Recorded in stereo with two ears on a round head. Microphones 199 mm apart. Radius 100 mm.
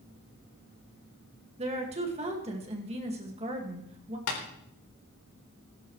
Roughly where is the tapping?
Left.